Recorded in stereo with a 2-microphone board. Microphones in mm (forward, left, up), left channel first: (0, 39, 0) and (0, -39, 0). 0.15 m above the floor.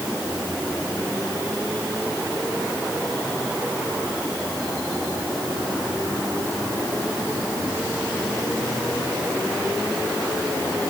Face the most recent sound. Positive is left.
No sound to turn to.